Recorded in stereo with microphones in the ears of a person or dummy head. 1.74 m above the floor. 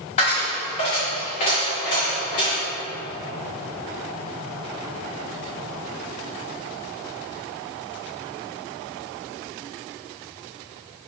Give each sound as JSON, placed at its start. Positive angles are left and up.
{"t": 0.2, "sound": "a dropped coin", "side_deg": 30, "distance_m": 1.2}